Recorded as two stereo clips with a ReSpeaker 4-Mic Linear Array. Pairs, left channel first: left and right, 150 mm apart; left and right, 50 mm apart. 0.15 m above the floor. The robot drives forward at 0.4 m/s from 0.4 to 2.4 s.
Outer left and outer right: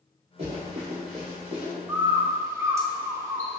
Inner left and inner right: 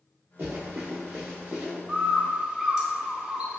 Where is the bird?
15° right (ahead or behind), 0.6 m; by 3.6 s 20° right (ahead or behind), 0.5 m.